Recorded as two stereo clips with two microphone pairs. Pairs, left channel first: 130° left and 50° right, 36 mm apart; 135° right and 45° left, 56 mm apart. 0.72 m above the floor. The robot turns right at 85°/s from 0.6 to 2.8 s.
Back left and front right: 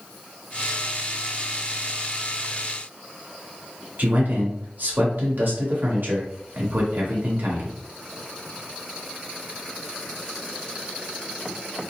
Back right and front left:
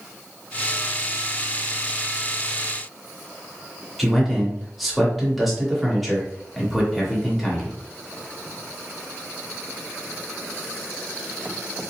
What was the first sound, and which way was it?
A man speaking, 45° right.